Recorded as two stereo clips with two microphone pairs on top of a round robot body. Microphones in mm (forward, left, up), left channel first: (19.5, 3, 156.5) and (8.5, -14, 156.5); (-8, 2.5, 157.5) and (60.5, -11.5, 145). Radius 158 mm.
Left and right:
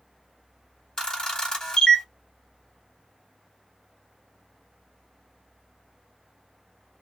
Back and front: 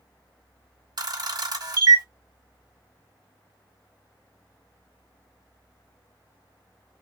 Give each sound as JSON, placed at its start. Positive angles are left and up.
{"t": 1.0, "sound": "a camera shutter", "azimuth_deg": -5, "distance_m": 1.2}